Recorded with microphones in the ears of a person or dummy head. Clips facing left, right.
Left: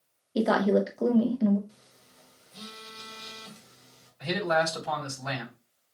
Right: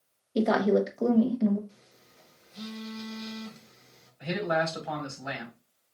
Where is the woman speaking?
10° left (ahead or behind), 0.6 m.